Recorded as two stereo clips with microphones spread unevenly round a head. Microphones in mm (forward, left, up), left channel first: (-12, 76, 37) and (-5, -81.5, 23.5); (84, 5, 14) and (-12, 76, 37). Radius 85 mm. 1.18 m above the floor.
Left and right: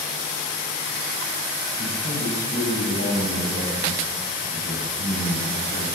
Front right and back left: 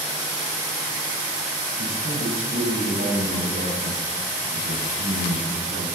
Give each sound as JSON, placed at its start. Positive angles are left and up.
{"t": 1.8, "sound": "a man speaking", "azimuth_deg": 130, "distance_m": 6.0}